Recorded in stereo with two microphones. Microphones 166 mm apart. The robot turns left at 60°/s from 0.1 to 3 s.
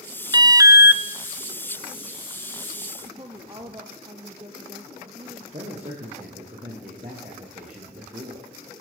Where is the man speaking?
45° right (ahead or behind), 8 m.